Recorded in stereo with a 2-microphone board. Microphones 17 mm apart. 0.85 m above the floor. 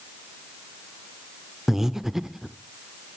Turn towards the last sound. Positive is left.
turn(degrees=-25)  # may be behind; listen again after turning